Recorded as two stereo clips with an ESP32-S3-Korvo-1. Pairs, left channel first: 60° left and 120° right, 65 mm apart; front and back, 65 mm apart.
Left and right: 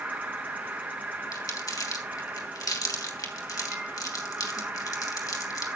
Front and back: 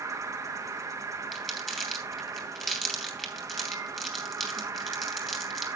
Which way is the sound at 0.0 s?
175° right.